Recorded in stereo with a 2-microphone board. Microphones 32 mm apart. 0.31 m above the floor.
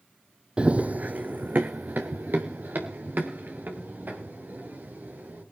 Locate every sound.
0.6 s running footsteps: 35° right (ahead or behind), 0.6 m; by 5.4 s 85° right, 6.5 m